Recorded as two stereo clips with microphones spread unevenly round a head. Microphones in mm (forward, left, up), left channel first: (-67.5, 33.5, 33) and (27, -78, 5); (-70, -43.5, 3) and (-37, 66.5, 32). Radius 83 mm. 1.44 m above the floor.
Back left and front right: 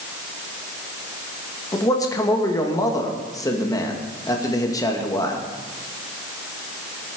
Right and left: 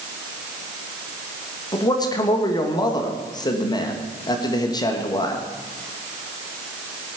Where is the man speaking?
160° right, 2.5 m.